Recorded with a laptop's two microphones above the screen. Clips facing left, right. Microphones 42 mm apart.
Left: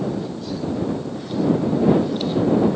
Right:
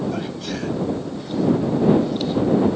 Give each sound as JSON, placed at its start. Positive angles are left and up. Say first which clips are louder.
{"t": 0.1, "sound": "a sneeze", "louder": "even", "side_deg": -70}